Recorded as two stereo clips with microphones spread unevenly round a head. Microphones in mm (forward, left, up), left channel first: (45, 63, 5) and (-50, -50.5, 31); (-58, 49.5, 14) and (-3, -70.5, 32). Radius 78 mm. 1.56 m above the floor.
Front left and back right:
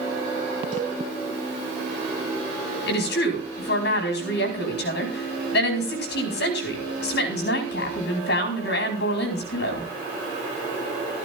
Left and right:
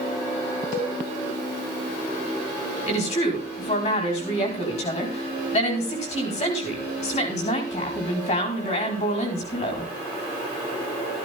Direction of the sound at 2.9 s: 65° left.